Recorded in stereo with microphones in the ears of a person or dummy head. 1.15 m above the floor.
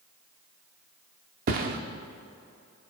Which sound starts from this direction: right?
A thud, at 1.5 s.